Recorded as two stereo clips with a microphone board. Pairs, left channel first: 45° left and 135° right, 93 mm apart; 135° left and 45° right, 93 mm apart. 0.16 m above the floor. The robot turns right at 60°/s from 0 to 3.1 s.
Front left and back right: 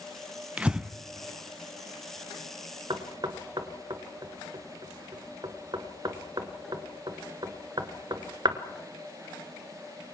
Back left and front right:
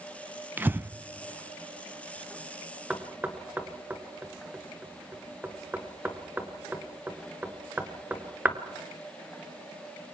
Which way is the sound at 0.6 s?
80° right.